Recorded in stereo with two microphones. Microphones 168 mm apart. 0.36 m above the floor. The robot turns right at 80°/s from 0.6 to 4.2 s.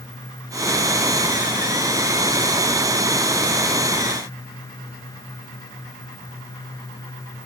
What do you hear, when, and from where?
Only background noise.